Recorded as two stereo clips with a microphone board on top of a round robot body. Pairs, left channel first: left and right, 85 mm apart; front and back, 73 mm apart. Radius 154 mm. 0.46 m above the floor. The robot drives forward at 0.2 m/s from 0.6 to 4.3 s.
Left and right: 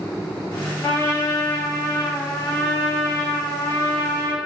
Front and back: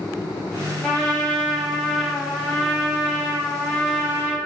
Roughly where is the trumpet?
Left.